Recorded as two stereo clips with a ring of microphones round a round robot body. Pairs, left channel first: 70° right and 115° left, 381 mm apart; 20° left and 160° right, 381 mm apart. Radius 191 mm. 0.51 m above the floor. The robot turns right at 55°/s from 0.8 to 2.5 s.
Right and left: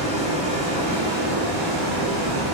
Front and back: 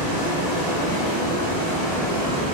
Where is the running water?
40° left, 1.2 m; by 2.5 s 135° left, 1.2 m.